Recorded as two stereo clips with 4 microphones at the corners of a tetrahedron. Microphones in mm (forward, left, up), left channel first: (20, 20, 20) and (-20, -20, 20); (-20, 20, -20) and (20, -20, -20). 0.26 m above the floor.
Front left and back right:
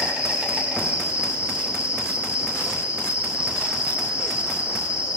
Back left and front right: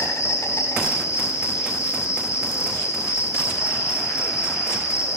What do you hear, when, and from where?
0.0 s an insect: 155° left, 5.5 m